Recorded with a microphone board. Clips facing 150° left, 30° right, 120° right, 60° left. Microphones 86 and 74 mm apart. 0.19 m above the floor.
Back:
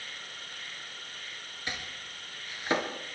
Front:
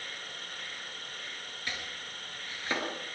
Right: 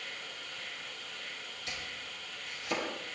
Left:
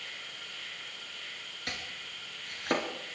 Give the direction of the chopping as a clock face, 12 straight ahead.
9 o'clock.